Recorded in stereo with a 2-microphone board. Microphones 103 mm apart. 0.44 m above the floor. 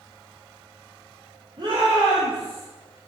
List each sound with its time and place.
1.6 s a shout: 60° right (ahead or behind), 4.5 m; by 2.6 s 65° right (ahead or behind), 3.5 m